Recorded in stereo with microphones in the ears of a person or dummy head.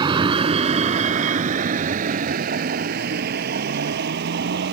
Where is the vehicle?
25° right (ahead or behind); by 4.7 s 60° right (ahead or behind).